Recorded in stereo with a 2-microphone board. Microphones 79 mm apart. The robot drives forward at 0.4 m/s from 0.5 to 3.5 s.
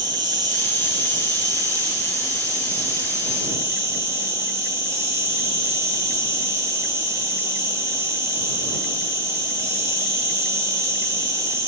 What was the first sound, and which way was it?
An insect, 60° right (ahead or behind).